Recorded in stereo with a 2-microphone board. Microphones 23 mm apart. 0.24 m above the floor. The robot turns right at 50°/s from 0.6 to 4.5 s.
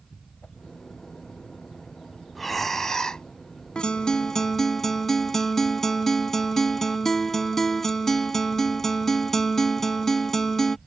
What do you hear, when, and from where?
0.4 s a whoosh: 45° left (ahead or behind)
2.4 s breathing: straight ahead; by 3.2 s 50° left
3.8 s a guitar: 120° left; by 10.8 s 160° left